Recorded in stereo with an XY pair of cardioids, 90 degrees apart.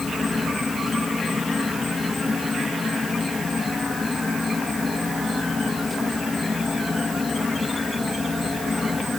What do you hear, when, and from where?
0.0 s an insect: 25° left